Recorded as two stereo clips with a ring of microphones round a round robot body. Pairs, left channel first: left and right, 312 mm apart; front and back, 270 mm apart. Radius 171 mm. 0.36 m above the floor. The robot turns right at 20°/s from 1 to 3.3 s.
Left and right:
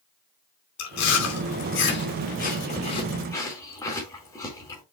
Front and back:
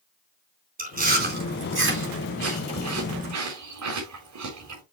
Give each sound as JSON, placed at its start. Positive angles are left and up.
{"t": 0.8, "sound": "chewing", "azimuth_deg": 125, "distance_m": 4.5}